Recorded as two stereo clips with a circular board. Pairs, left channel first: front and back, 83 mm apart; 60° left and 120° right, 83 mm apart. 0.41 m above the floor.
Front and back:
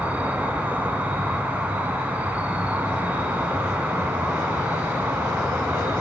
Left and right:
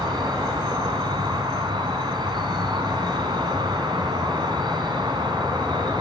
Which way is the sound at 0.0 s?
110° right.